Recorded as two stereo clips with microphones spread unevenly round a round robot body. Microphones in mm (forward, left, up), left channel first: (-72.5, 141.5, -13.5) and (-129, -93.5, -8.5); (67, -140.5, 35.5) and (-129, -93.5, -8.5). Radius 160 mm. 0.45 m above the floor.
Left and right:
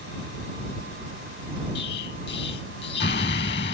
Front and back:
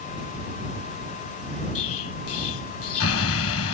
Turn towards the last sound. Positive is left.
turn(degrees=15)